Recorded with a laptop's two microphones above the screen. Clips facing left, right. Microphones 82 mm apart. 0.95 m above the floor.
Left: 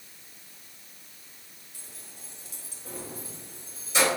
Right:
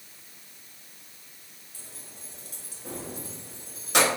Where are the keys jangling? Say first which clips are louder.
Right 2 dB; 30° right (ahead or behind), 1.0 m; by 4.1 s 60° right (ahead or behind), 0.8 m.